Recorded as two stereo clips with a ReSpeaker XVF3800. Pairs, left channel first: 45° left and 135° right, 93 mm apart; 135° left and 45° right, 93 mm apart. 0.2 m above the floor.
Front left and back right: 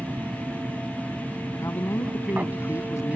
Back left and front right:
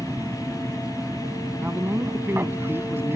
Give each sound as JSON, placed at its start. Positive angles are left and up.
{"t": 0.0, "sound": "an aircraft", "azimuth_deg": -80}
{"t": 1.6, "sound": "a man speaking", "azimuth_deg": 10}